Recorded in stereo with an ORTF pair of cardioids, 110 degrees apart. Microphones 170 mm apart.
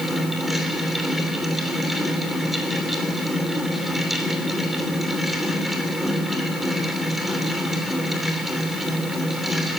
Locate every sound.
0.0 s a fan: straight ahead, 3 m